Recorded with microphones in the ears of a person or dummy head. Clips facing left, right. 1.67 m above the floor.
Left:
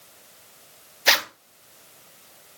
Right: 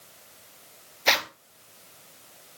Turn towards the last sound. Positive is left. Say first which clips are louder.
# left 1 dB
turn(degrees=5)  # may be behind; listen again after turning